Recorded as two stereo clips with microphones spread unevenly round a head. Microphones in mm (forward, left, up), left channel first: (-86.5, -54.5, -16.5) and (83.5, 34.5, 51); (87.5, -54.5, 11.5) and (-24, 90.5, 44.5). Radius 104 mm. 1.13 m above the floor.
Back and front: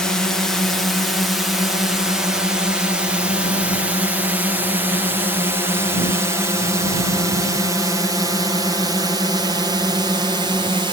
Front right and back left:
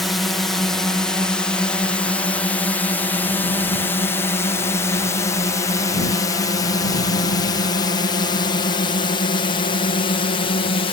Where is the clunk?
No clunk in this recording.